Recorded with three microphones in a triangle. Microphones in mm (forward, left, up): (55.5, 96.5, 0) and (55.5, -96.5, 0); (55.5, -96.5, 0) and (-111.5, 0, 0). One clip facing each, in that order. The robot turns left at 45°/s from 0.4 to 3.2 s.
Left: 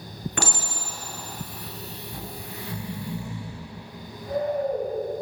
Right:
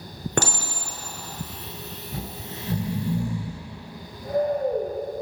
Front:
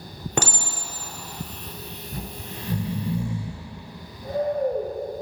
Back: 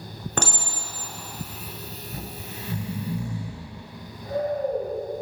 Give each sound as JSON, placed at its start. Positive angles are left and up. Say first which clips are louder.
{"t": 0.4, "sound": "a clink", "louder": "right 6 dB, front 2 dB", "azimuth_deg": -105, "distance_m": 0.9}
{"t": 2.1, "sound": "snoring", "louder": "right 5 dB, front 3 dB", "azimuth_deg": -30, "distance_m": 0.8}